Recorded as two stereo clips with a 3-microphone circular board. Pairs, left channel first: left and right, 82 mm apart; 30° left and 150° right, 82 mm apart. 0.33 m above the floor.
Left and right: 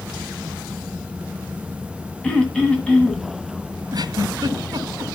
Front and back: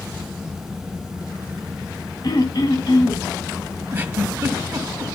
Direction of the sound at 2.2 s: 15° left.